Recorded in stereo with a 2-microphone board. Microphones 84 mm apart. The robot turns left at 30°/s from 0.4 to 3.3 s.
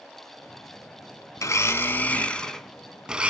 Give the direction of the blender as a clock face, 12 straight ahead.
11 o'clock.